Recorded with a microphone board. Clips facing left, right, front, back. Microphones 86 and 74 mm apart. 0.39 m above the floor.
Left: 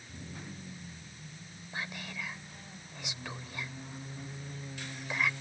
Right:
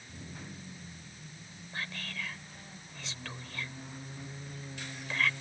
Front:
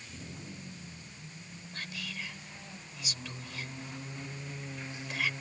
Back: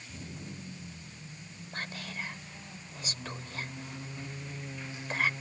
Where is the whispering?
160° left.